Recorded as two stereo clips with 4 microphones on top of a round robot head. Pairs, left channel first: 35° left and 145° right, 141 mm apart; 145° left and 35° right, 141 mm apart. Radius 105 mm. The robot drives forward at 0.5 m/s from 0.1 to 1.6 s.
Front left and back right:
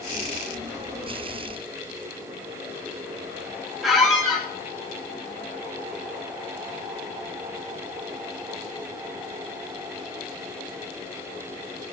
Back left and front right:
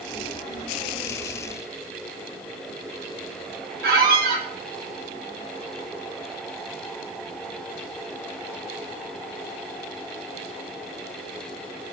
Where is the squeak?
55° right, 3 m.